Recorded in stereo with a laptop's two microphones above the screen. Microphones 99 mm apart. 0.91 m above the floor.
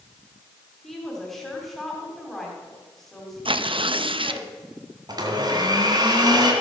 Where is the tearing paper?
60° right (ahead or behind), 0.6 m.